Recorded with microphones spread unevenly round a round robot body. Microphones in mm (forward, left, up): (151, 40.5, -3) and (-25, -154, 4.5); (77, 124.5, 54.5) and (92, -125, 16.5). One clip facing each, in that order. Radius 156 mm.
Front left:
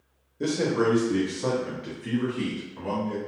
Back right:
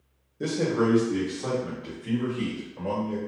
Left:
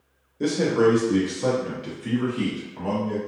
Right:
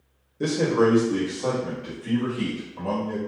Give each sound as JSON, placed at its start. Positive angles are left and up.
{"t": 0.4, "sound": "a man speaking", "azimuth_deg": -45, "distance_m": 0.8}